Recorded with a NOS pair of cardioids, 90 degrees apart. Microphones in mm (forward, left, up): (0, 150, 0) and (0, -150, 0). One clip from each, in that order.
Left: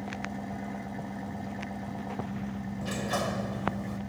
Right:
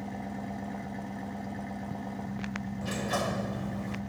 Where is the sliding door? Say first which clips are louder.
Even; 5° right.